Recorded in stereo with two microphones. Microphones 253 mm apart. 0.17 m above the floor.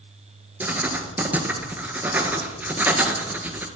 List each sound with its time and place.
0.6 s writing: 5° right (ahead or behind), 1.3 m